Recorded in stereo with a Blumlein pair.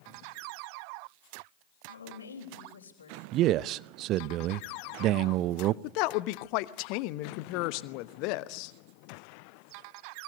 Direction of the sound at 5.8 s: 40° left.